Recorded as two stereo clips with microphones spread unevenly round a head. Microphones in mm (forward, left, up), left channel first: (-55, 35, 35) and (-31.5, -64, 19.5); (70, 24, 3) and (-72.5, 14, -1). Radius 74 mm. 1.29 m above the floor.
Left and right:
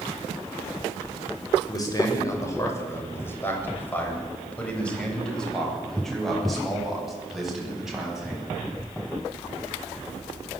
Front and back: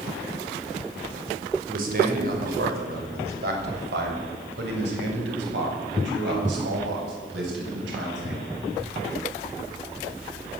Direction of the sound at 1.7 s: 155° left.